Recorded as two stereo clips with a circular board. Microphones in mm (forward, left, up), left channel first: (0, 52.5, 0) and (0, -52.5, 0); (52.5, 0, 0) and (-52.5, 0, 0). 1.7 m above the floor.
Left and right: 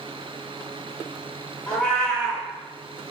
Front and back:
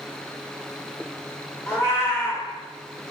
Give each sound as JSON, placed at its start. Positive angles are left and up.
{"t": 1.7, "sound": "a cat meowing", "azimuth_deg": 20, "distance_m": 1.3}